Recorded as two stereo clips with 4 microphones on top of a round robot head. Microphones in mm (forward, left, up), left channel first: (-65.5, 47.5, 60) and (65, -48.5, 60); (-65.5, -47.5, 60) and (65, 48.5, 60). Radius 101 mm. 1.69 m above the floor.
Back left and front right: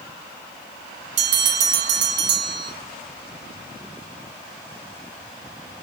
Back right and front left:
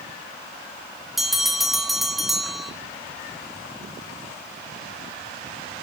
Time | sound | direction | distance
1.2 | a bell | 55° right | 1.7 m